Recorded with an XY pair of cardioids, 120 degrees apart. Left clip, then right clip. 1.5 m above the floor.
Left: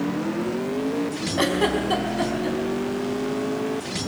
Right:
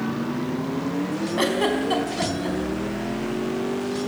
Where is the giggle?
Straight ahead, 4.5 m.